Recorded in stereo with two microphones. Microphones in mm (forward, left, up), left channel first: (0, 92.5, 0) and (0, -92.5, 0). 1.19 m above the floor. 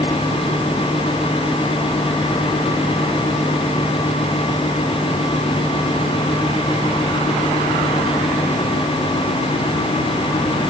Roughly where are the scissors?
No scissors in this recording.